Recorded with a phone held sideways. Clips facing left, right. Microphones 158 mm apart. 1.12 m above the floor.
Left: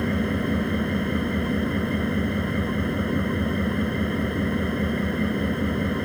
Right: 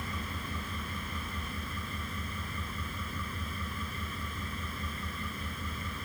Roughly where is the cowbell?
No cowbell in this recording.